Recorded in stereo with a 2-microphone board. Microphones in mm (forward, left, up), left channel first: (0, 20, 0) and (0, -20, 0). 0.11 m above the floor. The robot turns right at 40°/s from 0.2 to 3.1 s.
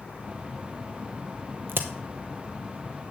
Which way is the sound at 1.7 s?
65° right (ahead or behind).